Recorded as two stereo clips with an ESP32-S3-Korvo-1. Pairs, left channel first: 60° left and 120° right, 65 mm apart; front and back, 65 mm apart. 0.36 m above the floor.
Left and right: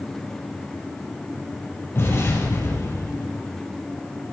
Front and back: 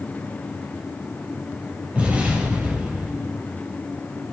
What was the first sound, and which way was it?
An explosion, 110° left.